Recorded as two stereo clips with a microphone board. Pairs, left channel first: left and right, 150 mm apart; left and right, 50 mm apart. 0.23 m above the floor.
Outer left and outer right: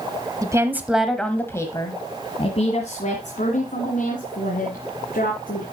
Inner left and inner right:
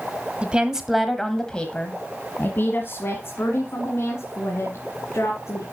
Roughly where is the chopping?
I don't hear chopping.